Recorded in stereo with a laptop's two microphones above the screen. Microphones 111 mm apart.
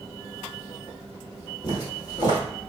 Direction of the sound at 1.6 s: 40° left (ahead or behind).